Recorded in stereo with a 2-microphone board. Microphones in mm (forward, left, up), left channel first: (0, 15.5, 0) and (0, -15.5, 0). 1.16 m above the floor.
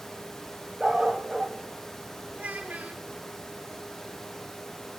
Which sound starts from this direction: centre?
A dog barking, at 0.8 s.